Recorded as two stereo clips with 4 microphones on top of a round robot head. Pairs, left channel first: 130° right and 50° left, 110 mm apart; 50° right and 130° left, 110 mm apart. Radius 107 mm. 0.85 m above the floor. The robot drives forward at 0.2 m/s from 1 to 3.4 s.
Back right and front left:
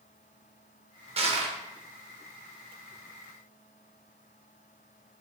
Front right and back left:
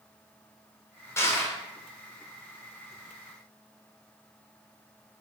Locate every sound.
1.2 s crushing: 20° left, 0.9 m